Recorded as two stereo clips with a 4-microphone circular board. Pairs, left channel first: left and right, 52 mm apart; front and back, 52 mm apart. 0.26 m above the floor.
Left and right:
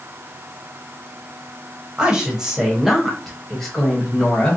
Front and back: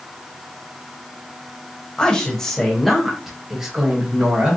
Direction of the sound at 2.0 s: 45° right.